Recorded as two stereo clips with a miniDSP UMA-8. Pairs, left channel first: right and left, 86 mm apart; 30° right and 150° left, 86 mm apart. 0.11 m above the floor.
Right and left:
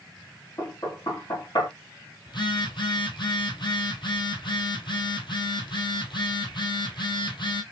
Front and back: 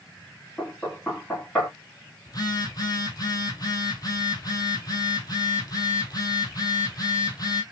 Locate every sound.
0.6 s knocking: 110° right, 3 m
2.3 s a phone buzzing: 70° right, 1.1 m